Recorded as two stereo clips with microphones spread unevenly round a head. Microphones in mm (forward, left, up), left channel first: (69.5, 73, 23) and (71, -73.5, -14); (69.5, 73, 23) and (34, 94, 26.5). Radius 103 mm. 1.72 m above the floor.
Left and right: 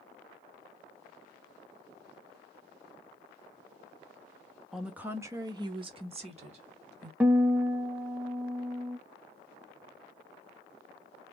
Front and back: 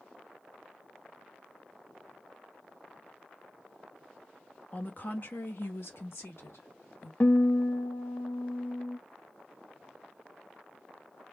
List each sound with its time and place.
4.7 s a woman speaking: 15° left, 0.9 m; by 7.1 s 45° right, 1.6 m
7.2 s a guitar: 5° left, 0.6 m